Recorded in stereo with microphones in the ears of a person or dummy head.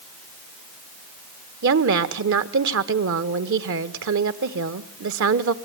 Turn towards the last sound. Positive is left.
turn(degrees=-70)  # may be behind; listen again after turning